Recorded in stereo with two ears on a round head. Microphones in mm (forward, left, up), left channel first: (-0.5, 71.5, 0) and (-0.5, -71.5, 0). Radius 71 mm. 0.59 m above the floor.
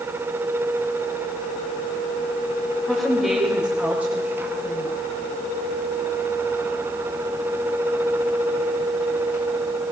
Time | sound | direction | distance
2.9 | a woman speaking | centre (ahead or behind) | 3 m